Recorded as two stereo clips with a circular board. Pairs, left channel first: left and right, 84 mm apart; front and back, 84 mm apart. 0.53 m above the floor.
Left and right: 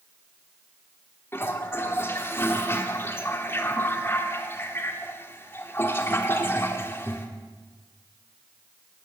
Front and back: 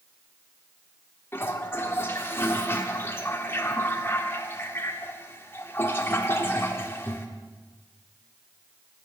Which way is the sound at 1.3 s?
45° left.